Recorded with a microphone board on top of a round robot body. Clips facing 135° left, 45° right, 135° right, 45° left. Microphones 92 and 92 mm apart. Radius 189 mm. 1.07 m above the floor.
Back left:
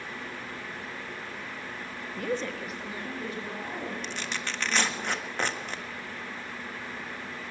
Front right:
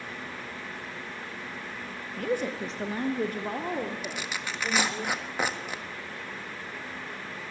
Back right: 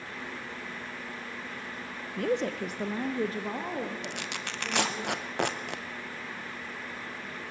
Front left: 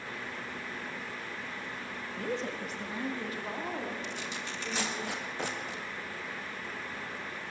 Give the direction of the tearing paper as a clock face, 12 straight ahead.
4 o'clock.